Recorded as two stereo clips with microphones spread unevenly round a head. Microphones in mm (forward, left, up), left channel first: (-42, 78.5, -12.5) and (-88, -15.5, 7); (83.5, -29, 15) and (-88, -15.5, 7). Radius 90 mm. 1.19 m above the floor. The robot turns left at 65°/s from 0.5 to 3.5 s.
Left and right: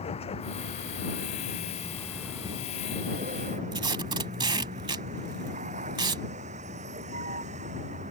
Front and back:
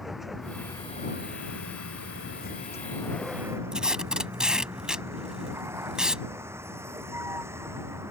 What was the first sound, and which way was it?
A vehicle, 85° left.